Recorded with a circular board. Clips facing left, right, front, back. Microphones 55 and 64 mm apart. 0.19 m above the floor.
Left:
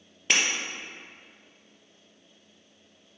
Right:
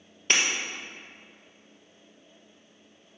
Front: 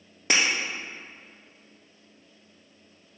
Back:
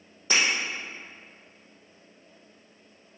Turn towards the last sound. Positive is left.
turn(degrees=0)